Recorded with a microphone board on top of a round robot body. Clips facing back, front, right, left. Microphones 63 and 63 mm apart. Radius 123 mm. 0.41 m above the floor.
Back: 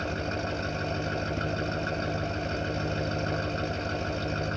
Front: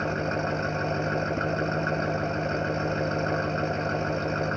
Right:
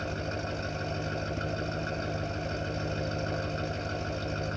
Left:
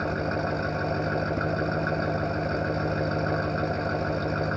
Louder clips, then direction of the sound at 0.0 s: Front 4 dB, left 7 dB; 55° left.